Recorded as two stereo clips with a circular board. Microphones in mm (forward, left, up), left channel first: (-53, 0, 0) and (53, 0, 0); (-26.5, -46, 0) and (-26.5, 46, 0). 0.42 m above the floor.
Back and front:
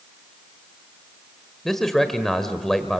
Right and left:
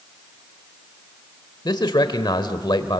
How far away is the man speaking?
About 1.3 m.